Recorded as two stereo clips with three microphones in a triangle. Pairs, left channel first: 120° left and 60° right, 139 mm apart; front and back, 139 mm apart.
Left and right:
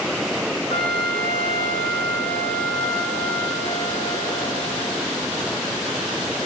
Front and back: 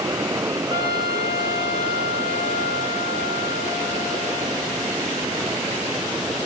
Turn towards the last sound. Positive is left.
turn(degrees=125)